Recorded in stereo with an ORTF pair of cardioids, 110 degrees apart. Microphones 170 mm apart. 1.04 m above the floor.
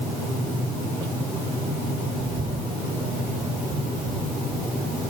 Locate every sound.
2.2 s a bird: 35° right